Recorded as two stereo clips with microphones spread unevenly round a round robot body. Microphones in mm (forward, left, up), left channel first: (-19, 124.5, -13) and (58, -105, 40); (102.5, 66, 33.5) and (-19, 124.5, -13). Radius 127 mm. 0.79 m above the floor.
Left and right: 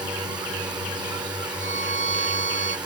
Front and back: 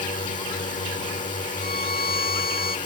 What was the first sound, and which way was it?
A drone, 5° left.